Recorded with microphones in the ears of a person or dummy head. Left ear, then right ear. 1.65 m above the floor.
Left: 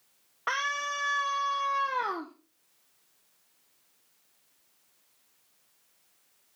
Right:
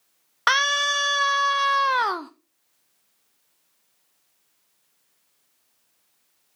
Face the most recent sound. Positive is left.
turn(degrees=-55)  # may be behind; listen again after turning